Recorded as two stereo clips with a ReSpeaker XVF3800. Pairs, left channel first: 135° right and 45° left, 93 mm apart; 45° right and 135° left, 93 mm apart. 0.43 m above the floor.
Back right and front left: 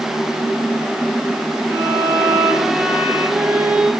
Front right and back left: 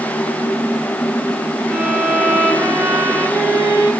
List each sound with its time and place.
1.7 s a violin: 85° left, 1.4 m